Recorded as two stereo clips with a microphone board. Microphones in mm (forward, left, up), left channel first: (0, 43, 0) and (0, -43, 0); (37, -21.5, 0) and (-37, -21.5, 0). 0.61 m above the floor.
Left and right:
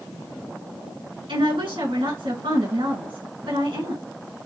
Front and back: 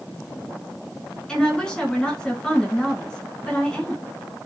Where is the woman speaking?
80° right, 5 m.